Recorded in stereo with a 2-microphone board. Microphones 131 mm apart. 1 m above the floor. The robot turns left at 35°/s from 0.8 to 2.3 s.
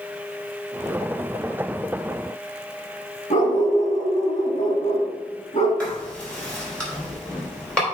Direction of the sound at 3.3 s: 75° left (ahead or behind).